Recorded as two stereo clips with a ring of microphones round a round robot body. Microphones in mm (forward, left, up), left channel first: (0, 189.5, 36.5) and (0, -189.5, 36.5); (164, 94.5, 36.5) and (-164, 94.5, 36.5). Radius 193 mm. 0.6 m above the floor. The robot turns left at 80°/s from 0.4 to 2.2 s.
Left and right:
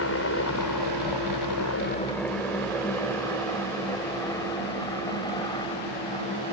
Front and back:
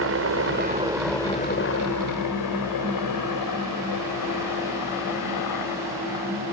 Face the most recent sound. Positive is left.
turn(degrees=15)